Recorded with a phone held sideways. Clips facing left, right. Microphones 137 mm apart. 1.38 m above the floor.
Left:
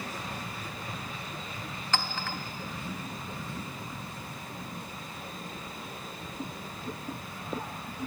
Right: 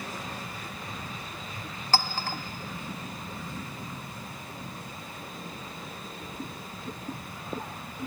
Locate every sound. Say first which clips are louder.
1.9 s a clink: right 4 dB; 35° right (ahead or behind), 0.5 m